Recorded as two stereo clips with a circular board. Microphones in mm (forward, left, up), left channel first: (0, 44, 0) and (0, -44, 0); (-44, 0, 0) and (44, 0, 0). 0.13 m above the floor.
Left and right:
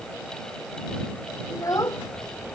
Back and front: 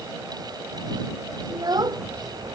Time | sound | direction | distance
1.5 | a child speaking | 40° left | ?